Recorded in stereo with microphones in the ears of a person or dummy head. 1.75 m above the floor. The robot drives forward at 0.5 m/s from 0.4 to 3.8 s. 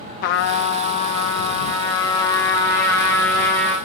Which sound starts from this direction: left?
A trumpet, at 0.2 s.